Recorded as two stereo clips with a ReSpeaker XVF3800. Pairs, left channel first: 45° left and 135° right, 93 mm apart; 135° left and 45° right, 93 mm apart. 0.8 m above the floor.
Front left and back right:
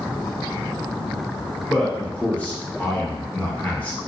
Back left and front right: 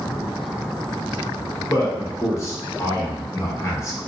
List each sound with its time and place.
1.7 s a man speaking: 110° left, 0.7 m